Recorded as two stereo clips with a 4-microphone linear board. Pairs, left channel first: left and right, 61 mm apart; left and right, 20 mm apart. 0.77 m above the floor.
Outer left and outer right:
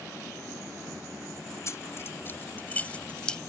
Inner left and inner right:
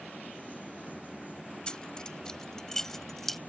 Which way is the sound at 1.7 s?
50° left (ahead or behind).